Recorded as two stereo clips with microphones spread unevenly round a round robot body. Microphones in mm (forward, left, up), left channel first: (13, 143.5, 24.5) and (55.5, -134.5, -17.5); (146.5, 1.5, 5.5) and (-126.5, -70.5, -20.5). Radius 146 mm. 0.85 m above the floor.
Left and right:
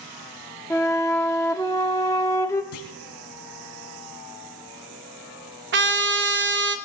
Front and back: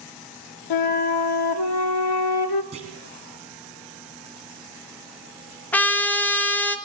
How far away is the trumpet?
About 1.2 m.